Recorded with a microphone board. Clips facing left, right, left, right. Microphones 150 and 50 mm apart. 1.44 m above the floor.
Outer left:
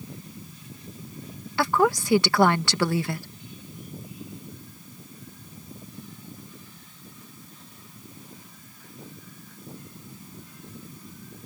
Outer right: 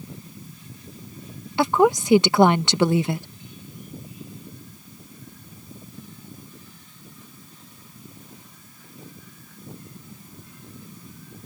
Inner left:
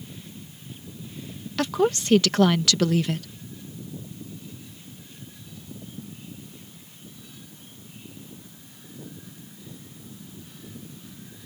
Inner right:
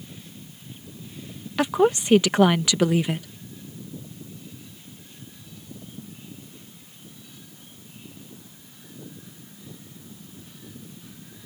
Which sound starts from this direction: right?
A woman speaking, at 1.6 s.